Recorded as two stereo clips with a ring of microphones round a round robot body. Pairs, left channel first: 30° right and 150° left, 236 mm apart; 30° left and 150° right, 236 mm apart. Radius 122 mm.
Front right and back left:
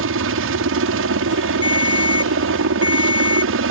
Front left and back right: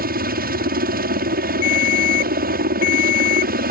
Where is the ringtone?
40° left.